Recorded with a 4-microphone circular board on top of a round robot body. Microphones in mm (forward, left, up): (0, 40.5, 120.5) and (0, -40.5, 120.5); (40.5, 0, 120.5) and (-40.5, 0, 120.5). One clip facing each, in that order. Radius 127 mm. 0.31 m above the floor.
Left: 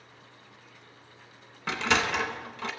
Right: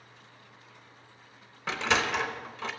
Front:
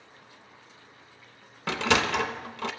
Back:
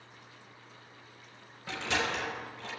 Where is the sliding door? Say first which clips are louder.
Left 1 dB, front 7 dB; straight ahead, 0.5 m.